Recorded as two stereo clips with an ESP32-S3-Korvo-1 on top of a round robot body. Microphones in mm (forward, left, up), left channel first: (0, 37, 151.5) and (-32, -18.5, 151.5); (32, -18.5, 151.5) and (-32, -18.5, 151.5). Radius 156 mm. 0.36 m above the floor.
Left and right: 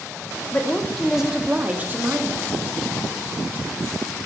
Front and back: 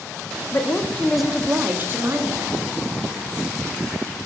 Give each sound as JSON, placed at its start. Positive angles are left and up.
{"t": 0.5, "sound": "a woman speaking", "azimuth_deg": 5, "distance_m": 0.9}